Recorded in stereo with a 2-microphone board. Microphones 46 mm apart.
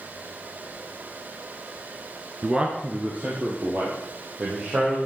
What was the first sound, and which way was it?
A man speaking, 20° right (ahead or behind).